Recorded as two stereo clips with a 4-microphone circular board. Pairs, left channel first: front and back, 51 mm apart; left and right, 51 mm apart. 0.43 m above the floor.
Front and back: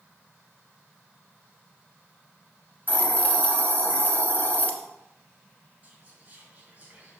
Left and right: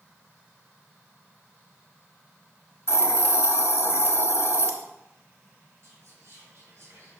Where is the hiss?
55° left, 1.3 m.